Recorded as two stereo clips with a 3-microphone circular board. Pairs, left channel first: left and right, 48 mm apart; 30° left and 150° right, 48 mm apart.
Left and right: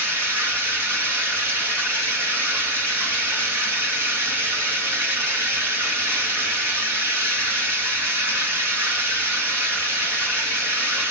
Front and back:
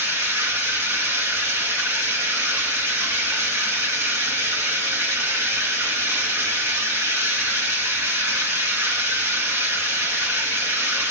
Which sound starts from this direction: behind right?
Running water, at 0.0 s.